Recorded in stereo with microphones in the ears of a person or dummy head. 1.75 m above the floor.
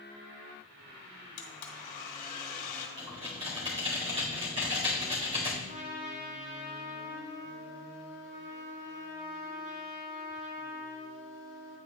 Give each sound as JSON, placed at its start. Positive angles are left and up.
{"t": 1.4, "sound": "a blender", "side_deg": 45, "distance_m": 1.6}
{"t": 3.0, "sound": "typing on a keyboard", "side_deg": -30, "distance_m": 2.0}
{"t": 5.7, "sound": "a trumpet", "side_deg": -70, "distance_m": 2.5}